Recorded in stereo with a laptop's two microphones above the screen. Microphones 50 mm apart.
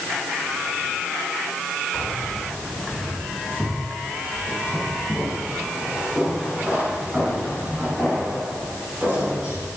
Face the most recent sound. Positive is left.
turn(degrees=-35)  # may be behind; listen again after turning